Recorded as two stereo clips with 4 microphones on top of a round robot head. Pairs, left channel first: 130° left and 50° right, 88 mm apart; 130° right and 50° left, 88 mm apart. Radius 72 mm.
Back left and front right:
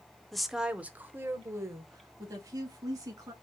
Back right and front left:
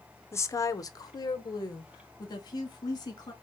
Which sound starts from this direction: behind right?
A woman speaking, at 0.3 s.